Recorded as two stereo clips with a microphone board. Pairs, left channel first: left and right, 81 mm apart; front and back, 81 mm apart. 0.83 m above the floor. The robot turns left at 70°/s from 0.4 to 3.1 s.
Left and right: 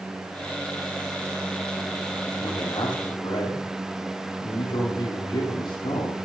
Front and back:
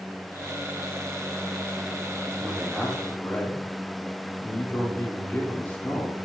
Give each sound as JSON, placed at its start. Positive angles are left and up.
{"t": 2.4, "sound": "a man speaking", "azimuth_deg": 115, "distance_m": 2.5}